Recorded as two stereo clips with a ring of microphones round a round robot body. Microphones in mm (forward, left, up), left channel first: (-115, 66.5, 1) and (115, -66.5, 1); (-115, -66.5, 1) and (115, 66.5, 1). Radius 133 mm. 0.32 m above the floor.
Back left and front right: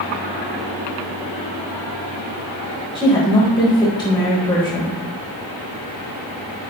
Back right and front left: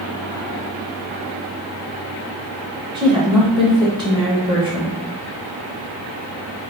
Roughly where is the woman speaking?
Left.